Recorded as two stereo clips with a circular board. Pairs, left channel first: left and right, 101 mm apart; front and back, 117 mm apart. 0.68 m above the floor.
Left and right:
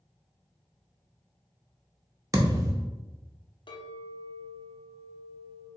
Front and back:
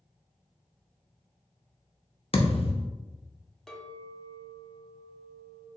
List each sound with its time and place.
2.3 s a thud: 35° right, 0.6 m
3.7 s a clink: 85° left, 0.6 m